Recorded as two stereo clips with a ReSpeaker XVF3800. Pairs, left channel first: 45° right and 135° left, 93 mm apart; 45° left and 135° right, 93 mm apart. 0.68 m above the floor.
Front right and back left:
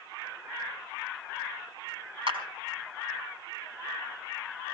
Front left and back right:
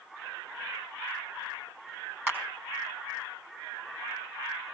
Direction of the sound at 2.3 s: 155° left.